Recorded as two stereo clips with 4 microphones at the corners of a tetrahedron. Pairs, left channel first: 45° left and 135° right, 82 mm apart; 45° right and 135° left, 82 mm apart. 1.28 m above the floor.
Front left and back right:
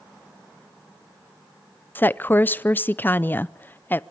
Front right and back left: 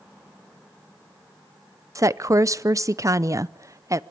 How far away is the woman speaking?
About 0.6 m.